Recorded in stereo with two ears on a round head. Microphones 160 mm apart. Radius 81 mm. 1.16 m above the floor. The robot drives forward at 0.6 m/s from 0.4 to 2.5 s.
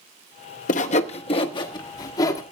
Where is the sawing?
50° left (ahead or behind), 0.7 m; by 2.4 s 20° left (ahead or behind), 1.5 m.